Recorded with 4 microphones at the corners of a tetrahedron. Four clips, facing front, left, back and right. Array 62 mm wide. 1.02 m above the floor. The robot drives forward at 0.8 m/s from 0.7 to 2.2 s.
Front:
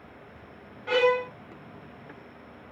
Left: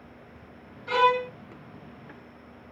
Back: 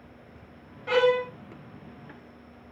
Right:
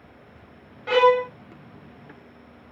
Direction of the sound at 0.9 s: 90° right.